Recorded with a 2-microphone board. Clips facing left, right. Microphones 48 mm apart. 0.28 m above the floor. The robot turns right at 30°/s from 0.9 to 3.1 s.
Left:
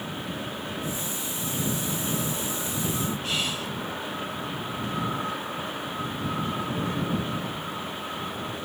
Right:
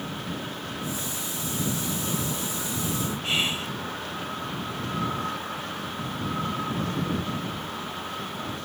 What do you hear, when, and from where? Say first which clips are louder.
3.2 s whispering: right 2 dB; 30° right (ahead or behind)